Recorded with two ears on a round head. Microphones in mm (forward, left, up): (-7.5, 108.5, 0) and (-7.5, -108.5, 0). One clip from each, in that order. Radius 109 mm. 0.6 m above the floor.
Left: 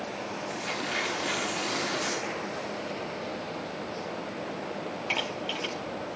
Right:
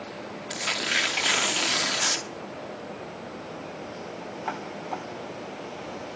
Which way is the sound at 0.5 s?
45° right (ahead or behind).